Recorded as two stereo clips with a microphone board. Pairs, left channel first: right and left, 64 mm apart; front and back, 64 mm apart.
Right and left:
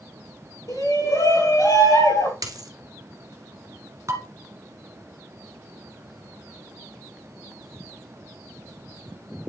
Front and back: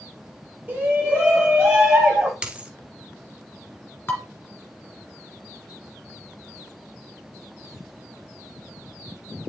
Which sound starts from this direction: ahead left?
Dishes clattering, at 4.1 s.